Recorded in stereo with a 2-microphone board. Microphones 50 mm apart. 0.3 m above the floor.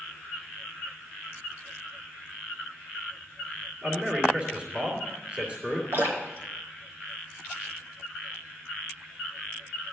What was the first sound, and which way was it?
A man speaking, 30° right (ahead or behind).